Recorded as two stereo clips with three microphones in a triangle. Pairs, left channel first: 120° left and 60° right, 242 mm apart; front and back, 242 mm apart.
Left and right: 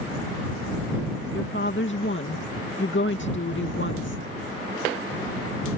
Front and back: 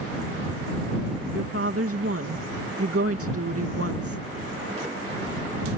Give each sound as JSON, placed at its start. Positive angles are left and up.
{"t": 1.3, "sound": "a woman speaking", "azimuth_deg": 160}